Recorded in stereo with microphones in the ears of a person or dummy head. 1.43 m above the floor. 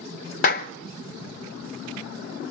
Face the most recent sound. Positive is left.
turn(degrees=45)  # may be behind; listen again after turning